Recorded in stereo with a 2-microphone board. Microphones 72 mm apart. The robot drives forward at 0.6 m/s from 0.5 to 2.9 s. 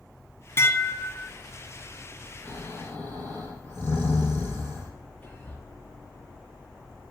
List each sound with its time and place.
0.6 s dishes clattering: 35° left (ahead or behind), 1.4 m; by 1.3 s 30° left (ahead or behind), 1.8 m
2.5 s snoring: 25° left (ahead or behind), 5 m
5.2 s whispering: 20° left (ahead or behind), 6.5 m